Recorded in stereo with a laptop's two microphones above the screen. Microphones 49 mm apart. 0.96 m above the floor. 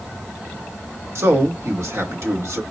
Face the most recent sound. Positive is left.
turn(degrees=-65)  # may be behind; listen again after turning